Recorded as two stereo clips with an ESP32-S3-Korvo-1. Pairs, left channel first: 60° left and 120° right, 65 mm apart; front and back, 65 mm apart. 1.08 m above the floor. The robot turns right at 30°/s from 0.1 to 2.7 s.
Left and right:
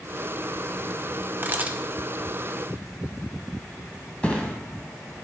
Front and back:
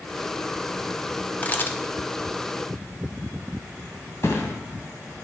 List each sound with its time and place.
1.4 s a camera shutter: 65° right, 0.7 m; by 1.8 s 55° right, 0.7 m
4.2 s a thud: 5° right, 1.4 m